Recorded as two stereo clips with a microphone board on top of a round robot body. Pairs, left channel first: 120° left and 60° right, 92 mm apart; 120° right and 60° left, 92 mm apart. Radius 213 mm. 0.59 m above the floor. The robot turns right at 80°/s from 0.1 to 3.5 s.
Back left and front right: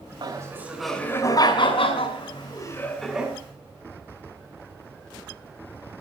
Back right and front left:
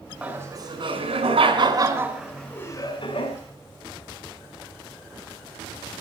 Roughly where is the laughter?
Ahead.